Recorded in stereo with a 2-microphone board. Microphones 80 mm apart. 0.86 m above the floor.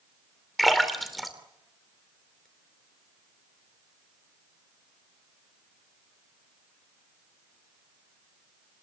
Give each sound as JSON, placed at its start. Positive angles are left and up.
{"t": 0.6, "sound": "a splash", "side_deg": 0, "distance_m": 3.0}